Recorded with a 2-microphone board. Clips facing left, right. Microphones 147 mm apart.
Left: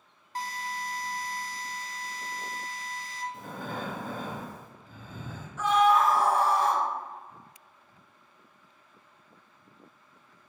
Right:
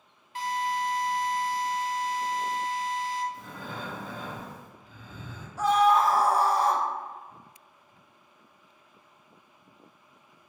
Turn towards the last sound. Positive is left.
turn(degrees=-35)  # may be behind; listen again after turning